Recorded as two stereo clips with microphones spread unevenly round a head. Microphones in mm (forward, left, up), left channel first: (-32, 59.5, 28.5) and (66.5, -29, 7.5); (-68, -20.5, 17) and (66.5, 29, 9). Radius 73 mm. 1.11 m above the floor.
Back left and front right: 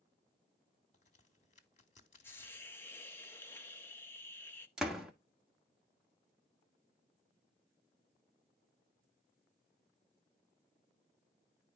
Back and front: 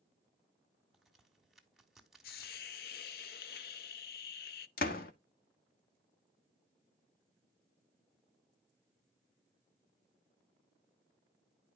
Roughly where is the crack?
Left.